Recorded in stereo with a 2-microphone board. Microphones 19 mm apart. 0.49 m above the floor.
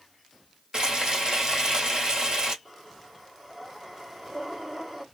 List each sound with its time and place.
0.7 s frying: 45° right (ahead or behind), 1.7 m
2.6 s breathing: 20° right (ahead or behind), 1.3 m